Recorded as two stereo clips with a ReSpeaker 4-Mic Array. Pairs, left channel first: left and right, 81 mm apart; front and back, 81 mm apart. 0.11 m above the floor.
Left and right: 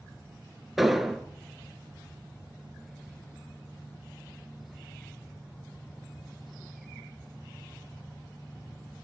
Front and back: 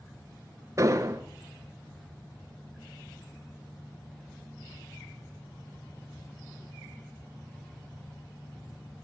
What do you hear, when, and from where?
0.8 s an explosion: 175° right, 0.8 m